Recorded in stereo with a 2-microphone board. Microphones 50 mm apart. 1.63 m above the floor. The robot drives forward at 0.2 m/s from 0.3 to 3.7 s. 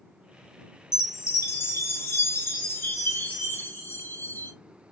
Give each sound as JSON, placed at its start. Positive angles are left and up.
{"t": 0.9, "sound": "a chime", "side_deg": 70, "distance_m": 0.9}